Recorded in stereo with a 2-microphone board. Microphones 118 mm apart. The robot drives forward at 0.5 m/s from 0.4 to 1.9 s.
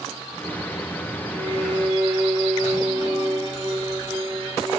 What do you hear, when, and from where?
1.3 s a violin: 70° right (ahead or behind), 3.5 m; by 4.8 s 65° right (ahead or behind), 3.5 m